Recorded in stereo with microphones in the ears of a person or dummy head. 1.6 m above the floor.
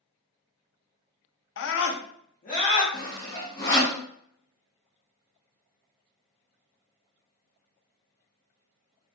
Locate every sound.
1.6 s a scream: 65° left (ahead or behind), 0.5 m; by 2.8 s 35° left (ahead or behind), 0.9 m
2.9 s sawing: 20° left (ahead or behind), 0.6 m